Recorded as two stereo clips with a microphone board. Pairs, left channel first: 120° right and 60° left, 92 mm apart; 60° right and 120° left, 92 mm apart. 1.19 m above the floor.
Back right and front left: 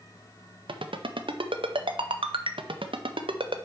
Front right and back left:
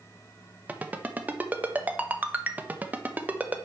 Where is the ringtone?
50° left, 0.5 m.